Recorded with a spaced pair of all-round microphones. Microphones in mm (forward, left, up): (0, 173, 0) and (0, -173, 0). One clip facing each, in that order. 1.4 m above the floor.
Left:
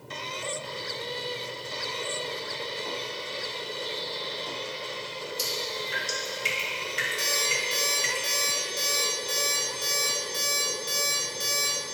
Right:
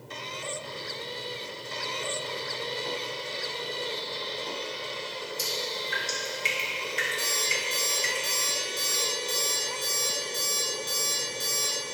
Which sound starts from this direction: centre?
Dripping, at 5.4 s.